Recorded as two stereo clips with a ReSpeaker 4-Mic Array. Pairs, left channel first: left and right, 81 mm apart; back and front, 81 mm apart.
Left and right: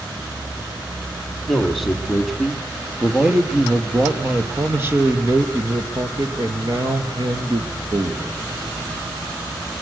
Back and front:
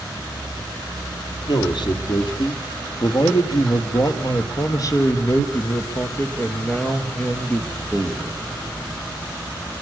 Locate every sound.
1.5 s a man speaking: straight behind, 4 m; by 8.4 s 95° right, 3.5 m